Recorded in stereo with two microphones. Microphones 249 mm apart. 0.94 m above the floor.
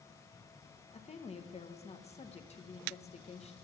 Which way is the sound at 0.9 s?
30° left (ahead or behind).